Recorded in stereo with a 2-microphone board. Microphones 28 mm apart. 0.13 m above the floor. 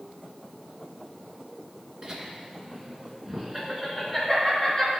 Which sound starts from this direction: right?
Laughter, at 2.0 s.